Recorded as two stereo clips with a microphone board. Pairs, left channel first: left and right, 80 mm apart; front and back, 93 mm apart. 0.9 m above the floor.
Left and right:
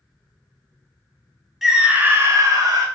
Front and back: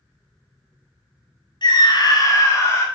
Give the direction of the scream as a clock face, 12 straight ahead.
12 o'clock.